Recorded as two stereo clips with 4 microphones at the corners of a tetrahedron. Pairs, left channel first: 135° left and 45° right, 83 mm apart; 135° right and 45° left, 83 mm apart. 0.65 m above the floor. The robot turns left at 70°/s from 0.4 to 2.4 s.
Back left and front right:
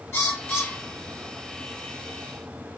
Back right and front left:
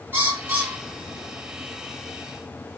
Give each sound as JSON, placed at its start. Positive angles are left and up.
{"t": 0.1, "sound": "a bird", "azimuth_deg": 100, "distance_m": 1.1}